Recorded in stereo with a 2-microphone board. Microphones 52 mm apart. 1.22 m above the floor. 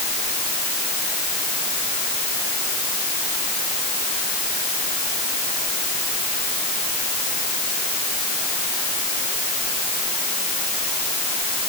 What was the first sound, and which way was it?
Only background noise.